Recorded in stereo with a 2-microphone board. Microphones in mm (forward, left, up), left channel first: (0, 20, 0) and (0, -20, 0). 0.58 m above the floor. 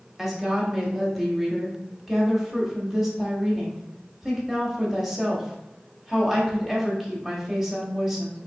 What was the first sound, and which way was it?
A woman speaking, 5° right (ahead or behind).